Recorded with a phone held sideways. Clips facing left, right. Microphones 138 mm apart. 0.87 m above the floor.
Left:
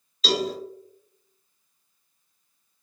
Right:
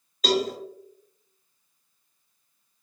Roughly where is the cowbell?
Right.